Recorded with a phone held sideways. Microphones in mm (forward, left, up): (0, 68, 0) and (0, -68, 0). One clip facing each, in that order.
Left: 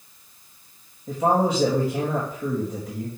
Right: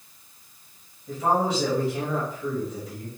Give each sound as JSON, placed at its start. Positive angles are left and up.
{"t": 1.1, "sound": "a man speaking", "side_deg": 55, "distance_m": 3.5}